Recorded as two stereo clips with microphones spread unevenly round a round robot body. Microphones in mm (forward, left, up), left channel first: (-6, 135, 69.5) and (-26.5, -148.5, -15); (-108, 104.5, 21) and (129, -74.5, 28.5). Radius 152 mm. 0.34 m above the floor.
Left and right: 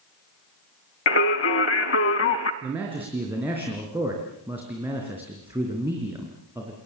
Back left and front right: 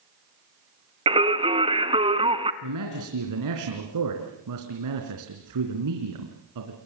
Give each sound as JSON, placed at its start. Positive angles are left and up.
{"t": 1.1, "sound": "singing", "azimuth_deg": 35, "distance_m": 1.4}
{"t": 2.6, "sound": "a man speaking", "azimuth_deg": -15, "distance_m": 3.5}